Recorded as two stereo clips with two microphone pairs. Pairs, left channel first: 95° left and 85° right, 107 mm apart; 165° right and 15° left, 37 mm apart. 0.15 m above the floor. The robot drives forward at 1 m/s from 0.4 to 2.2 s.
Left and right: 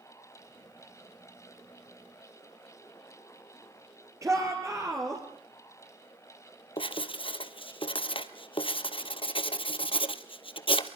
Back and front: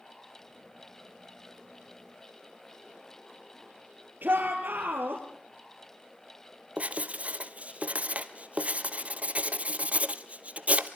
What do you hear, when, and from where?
4.2 s a shout: 25° right, 3.5 m
6.8 s writing: 60° left, 1.1 m